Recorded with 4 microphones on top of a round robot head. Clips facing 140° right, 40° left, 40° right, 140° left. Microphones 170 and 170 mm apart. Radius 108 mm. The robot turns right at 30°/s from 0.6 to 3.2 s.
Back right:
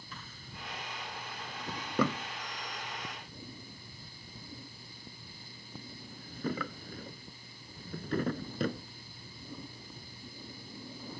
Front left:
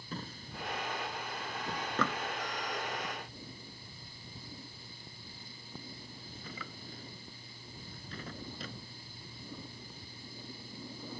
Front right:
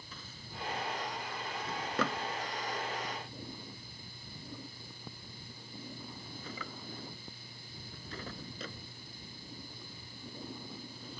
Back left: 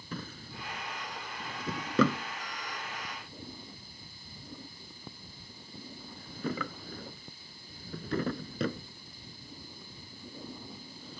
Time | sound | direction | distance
0.1 | a drawer | 100° left | ?